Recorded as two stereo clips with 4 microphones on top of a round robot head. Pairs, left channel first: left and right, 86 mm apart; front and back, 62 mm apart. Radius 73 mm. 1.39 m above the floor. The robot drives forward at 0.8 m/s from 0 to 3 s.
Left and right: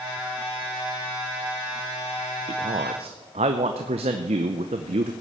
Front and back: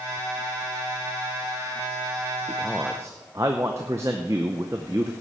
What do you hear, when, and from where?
2.5 s a man speaking: 75° right, 0.6 m; by 5.1 s 120° right, 0.6 m